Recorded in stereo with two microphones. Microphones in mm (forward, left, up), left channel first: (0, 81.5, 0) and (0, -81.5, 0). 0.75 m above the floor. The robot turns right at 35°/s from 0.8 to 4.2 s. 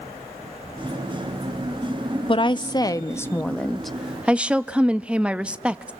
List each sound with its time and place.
2.3 s a woman speaking: 125° left, 0.7 m; by 5.9 s 170° right, 0.7 m